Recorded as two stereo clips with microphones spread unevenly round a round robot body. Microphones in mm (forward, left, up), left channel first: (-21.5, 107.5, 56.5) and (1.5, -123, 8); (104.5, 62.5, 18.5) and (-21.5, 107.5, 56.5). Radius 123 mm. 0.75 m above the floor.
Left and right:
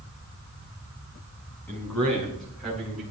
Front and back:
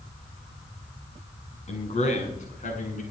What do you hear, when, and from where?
1.7 s a man speaking: 15° left, 6 m; by 3.0 s 5° left, 7 m